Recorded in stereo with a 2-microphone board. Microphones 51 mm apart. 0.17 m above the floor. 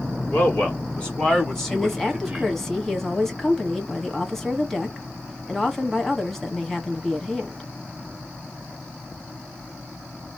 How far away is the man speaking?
About 2.5 m.